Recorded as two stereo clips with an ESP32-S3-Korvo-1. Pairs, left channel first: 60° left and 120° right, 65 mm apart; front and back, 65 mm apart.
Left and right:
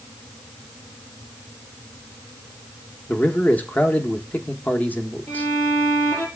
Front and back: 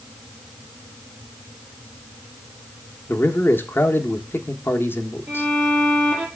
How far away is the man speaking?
About 1.0 m.